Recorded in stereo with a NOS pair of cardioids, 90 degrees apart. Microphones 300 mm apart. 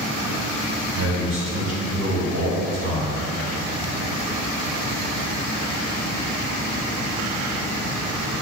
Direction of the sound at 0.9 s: 55° right.